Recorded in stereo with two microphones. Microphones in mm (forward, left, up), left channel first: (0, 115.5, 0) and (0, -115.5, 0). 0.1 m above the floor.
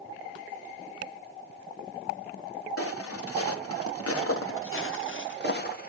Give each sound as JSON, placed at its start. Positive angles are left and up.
{"t": 2.8, "sound": "footsteps", "side_deg": 75, "distance_m": 1.8}